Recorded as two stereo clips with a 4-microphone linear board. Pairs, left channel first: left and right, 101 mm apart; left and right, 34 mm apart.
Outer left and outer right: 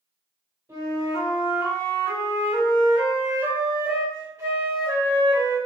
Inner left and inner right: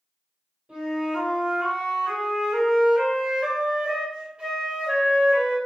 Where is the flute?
35° right (ahead or behind), 1.8 m.